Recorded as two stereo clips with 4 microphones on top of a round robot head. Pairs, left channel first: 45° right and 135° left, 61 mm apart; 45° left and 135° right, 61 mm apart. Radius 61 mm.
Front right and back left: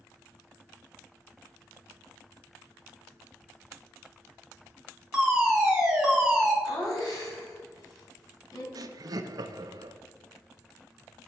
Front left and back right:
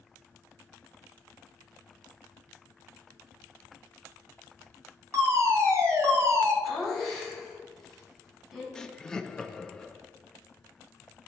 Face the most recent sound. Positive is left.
turn(degrees=125)